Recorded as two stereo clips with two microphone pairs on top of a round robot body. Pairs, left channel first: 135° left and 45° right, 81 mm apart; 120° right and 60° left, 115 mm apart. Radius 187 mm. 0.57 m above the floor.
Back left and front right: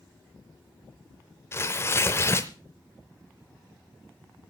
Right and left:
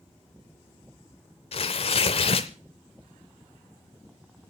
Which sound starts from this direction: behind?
Tearing paper, at 1.5 s.